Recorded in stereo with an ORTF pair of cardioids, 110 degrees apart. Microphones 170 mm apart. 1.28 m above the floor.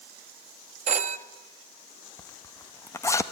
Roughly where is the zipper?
Ahead.